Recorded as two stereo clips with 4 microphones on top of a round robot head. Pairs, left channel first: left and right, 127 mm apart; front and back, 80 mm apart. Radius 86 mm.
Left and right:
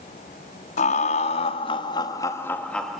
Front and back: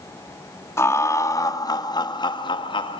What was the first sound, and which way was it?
Laughter, 55° left.